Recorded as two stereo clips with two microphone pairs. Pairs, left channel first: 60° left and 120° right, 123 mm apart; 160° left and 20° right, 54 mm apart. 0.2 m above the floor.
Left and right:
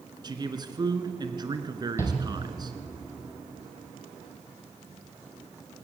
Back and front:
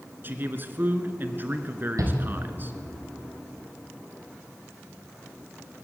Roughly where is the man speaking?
Right.